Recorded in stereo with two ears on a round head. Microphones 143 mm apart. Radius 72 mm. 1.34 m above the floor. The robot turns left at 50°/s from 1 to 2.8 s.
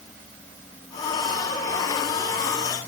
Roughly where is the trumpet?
I don't hear a trumpet.